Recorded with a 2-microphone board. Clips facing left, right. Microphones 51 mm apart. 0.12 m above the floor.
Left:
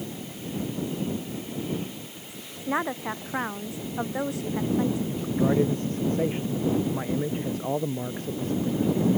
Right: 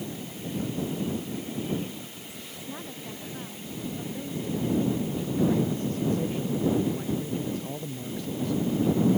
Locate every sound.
2.7 s a woman speaking: 70° left (ahead or behind)
5.1 s a man speaking: 35° left (ahead or behind)